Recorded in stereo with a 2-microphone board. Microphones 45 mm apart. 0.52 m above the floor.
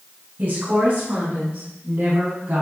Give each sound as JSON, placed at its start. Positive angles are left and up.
{"t": 0.4, "sound": "a woman speaking", "side_deg": -50, "distance_m": 5.0}